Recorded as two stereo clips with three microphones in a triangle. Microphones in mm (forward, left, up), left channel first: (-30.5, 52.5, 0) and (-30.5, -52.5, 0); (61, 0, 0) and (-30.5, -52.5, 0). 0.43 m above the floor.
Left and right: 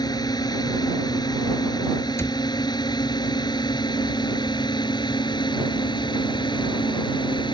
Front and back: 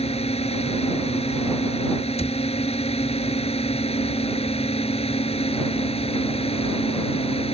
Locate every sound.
0.0 s a drone: 40° left; by 7.5 s 45° left
2.2 s a cupboard door: 25° left